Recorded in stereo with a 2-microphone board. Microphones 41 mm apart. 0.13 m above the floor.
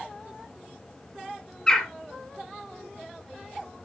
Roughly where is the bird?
Centre.